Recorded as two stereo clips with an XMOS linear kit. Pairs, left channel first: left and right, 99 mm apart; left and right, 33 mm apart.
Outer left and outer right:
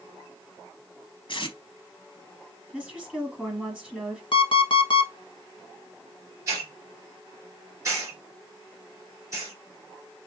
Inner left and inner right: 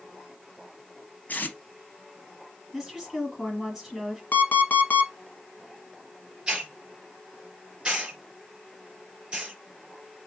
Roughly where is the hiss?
Right.